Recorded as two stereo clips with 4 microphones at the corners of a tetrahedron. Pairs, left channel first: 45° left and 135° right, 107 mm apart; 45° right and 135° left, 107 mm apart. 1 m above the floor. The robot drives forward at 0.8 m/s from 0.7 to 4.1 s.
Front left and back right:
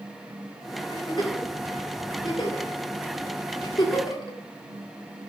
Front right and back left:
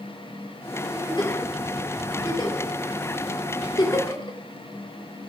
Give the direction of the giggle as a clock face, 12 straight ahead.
12 o'clock.